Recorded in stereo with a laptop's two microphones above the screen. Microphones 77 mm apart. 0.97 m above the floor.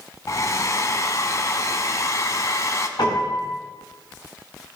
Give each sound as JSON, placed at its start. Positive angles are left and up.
{"t": 0.3, "sound": "a hair dryer", "side_deg": 45, "distance_m": 1.1}
{"t": 3.0, "sound": "a piano", "side_deg": 65, "distance_m": 3.5}